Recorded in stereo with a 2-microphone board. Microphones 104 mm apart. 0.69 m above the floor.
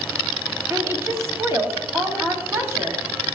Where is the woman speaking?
25° right (ahead or behind), 1.8 m.